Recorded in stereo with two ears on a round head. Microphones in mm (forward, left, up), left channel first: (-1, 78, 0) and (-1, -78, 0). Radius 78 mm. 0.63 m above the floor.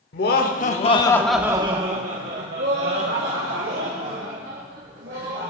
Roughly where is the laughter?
Left.